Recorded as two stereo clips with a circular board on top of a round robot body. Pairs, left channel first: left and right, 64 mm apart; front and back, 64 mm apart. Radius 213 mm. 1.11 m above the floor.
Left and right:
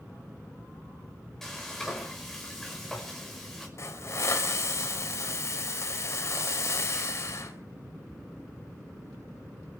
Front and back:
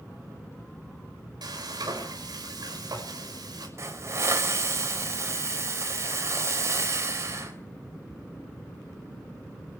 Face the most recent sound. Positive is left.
turn(degrees=135)